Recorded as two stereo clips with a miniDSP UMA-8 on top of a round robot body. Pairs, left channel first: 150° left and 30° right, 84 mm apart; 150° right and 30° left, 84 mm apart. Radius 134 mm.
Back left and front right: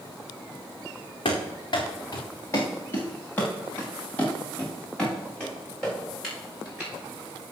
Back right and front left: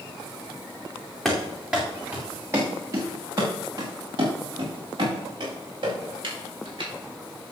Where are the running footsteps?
120° left, 2.5 m; by 6.9 s 65° left, 8.5 m.